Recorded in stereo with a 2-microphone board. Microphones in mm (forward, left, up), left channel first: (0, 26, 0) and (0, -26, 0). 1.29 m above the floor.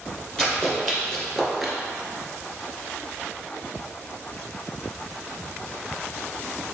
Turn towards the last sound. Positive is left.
turn(degrees=-5)  # may be behind; listen again after turning